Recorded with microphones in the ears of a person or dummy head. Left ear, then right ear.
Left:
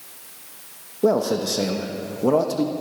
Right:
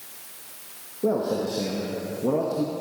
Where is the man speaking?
70° left (ahead or behind), 0.9 m.